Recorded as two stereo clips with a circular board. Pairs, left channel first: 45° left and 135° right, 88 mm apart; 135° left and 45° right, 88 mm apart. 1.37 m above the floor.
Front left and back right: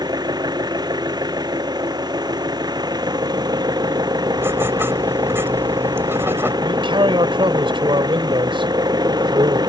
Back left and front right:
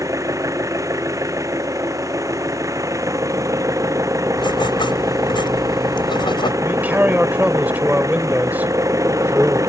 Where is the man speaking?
115° right.